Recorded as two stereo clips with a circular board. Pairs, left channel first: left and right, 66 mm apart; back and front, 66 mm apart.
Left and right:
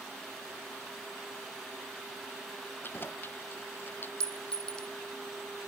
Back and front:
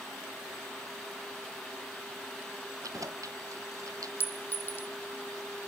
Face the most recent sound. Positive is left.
turn(degrees=160)